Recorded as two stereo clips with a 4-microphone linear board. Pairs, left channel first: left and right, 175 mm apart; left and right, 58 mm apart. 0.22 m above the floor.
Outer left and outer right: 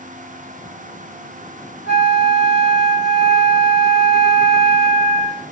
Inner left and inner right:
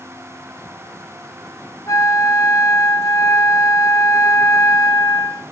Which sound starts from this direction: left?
A flute, at 1.9 s.